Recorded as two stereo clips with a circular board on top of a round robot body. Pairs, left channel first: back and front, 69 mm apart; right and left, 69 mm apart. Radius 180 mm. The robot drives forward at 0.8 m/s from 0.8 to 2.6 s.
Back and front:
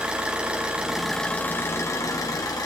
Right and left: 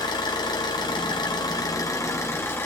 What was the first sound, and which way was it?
An engine running, 75° right.